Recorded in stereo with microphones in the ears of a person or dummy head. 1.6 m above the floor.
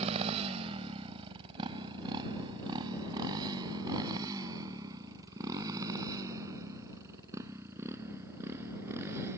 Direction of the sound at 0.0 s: 35° right (ahead or behind).